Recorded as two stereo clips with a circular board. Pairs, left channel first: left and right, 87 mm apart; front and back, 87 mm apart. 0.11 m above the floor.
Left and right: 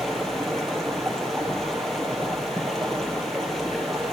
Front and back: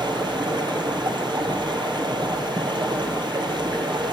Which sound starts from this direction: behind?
Running water, at 0.0 s.